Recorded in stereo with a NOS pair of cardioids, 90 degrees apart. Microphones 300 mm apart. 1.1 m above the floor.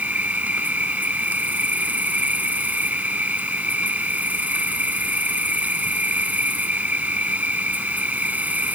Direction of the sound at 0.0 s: 5° right.